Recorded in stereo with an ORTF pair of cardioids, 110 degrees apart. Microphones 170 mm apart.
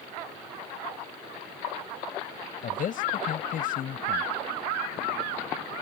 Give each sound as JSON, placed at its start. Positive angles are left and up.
{"t": 2.6, "sound": "a man speaking", "azimuth_deg": 50}